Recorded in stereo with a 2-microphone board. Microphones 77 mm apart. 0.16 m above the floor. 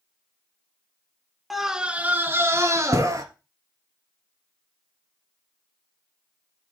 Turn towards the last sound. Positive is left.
turn(degrees=-50)  # may be behind; listen again after turning